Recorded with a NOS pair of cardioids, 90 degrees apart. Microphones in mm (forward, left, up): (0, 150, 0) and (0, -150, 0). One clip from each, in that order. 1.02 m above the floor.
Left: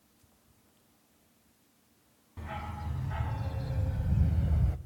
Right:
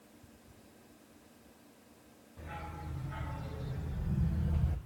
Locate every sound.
2.4 s a dog barking: 60° left, 2.5 m; by 4.8 s 25° left, 1.5 m